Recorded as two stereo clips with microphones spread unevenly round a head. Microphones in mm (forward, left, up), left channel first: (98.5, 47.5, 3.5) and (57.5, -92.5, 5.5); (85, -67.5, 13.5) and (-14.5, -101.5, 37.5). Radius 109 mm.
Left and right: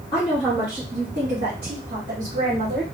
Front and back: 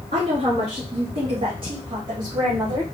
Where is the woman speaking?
155° left, 0.7 m; by 2.8 s 115° right, 1.2 m.